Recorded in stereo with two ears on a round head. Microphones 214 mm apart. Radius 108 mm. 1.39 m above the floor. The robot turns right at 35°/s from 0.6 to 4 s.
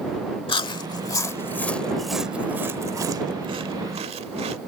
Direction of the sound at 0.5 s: 20° left (ahead or behind).